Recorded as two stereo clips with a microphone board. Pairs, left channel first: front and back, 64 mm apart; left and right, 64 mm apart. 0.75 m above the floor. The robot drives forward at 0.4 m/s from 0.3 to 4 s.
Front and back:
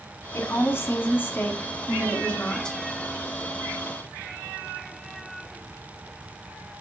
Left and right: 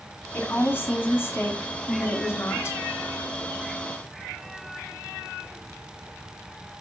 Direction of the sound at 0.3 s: 40° left.